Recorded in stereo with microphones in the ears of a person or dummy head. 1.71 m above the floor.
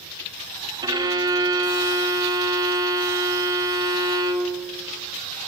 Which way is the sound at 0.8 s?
20° right (ahead or behind).